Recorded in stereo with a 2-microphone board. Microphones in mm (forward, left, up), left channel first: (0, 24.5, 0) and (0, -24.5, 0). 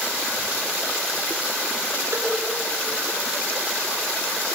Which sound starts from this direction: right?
A cowbell, at 2.1 s.